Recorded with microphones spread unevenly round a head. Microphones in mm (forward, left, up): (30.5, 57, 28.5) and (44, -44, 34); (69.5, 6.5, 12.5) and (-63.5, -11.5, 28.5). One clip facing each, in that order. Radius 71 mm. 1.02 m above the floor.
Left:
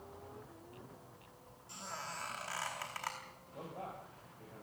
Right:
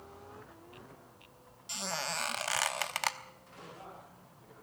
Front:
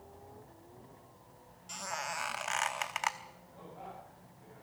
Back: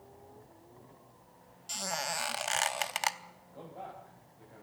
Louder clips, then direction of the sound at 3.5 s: Left 4 dB, back 3 dB; 145° left.